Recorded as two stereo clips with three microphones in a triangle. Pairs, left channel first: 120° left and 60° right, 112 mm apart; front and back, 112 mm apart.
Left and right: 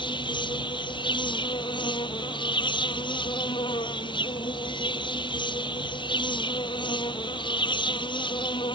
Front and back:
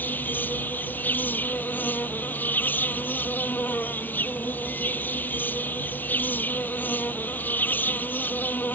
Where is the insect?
75° left.